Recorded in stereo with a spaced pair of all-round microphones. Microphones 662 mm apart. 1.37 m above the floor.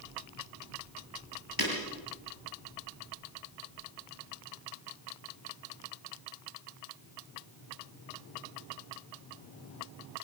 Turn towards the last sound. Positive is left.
turn(degrees=30)  # may be behind; listen again after turning